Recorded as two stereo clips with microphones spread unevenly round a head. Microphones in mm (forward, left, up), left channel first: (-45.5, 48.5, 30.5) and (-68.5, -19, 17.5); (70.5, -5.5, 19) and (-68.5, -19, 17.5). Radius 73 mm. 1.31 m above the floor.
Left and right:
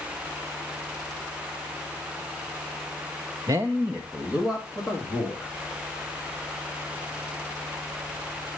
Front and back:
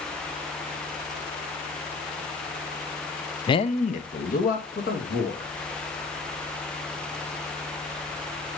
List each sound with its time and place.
3.5 s a man speaking: 55° right, 0.5 m; by 5.5 s 15° right, 3 m